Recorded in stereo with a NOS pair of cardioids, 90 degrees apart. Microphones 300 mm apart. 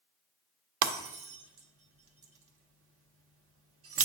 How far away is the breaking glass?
About 1.2 m.